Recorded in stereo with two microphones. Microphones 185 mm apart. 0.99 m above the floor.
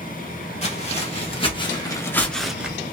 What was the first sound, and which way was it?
Footsteps, 35° left (ahead or behind).